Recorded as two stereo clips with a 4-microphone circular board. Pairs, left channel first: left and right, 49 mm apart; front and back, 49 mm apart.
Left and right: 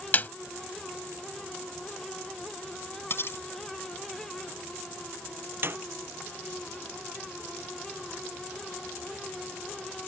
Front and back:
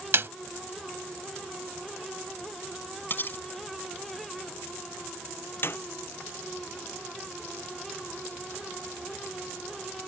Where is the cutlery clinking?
50° left.